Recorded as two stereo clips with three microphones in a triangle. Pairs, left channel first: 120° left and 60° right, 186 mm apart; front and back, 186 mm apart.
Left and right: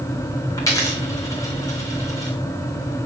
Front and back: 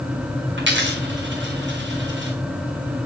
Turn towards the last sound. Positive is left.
turn(degrees=-170)